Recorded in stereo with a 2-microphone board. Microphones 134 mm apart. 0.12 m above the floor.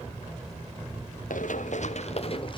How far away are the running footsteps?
About 1.6 m.